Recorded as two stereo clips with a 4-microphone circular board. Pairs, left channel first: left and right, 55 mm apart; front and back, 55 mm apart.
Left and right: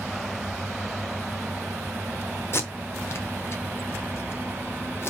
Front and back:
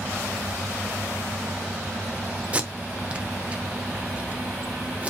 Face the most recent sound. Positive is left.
turn(degrees=120)